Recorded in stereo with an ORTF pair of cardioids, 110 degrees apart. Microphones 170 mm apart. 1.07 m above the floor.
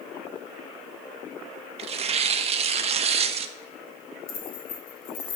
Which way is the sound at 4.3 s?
60° left.